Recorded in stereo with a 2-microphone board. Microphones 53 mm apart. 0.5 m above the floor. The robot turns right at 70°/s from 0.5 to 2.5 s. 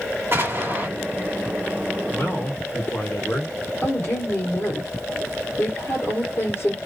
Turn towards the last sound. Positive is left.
turn(degrees=50)  # may be behind; listen again after turning